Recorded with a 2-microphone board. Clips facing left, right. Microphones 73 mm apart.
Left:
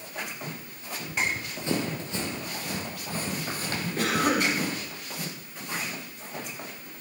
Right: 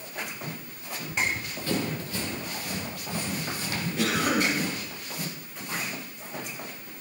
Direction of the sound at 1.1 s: 15° left (ahead or behind).